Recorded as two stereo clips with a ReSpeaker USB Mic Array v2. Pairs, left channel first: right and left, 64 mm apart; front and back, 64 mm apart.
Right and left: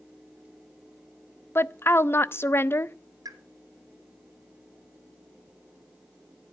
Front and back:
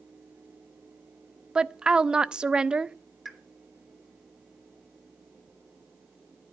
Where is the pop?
90° left, 3 m.